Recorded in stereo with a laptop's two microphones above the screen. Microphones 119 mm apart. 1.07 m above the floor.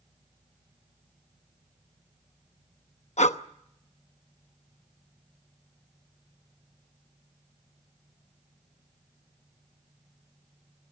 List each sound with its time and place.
3.2 s breathing: 75° left (ahead or behind), 0.8 m